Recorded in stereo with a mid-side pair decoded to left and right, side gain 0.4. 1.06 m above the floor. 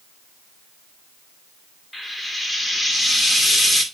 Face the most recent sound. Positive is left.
turn(degrees=10)